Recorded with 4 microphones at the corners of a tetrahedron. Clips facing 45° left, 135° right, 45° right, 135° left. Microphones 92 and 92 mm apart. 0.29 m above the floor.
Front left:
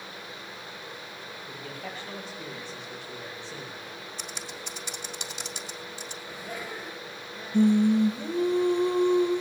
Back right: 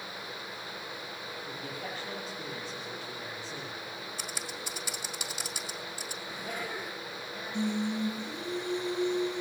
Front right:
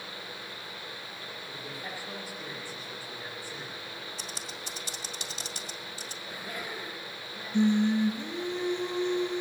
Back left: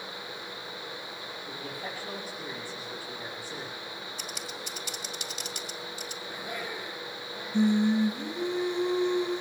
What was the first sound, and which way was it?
A man speaking, 170° left.